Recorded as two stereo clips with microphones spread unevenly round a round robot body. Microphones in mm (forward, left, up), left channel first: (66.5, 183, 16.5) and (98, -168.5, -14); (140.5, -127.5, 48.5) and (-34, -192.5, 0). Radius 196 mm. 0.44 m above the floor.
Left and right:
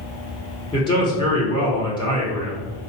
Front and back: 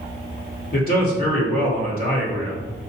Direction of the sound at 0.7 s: 20° left.